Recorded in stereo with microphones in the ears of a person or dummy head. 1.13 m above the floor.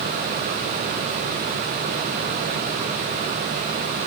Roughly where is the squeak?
No squeak in this recording.